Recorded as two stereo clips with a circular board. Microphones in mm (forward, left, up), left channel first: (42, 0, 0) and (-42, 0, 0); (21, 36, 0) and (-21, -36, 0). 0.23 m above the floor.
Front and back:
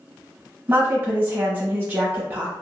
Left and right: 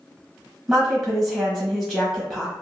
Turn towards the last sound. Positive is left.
turn(degrees=145)